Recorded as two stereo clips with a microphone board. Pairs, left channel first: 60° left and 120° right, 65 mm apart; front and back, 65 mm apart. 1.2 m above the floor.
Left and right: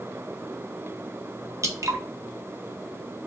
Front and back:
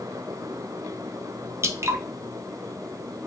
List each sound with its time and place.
1.6 s dripping: 140° right, 0.7 m